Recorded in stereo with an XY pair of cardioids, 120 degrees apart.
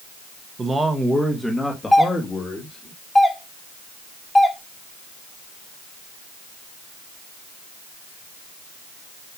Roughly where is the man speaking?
Ahead right.